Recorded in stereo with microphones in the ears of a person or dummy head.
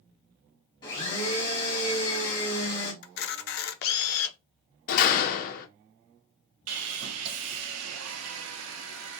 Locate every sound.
0.8 s a blender: 25° left (ahead or behind), 1.2 m
3.0 s a camera shutter: 50° left (ahead or behind), 0.5 m
4.9 s a door slam: 50° left (ahead or behind), 0.5 m
6.7 s sawing: 80° right, 0.5 m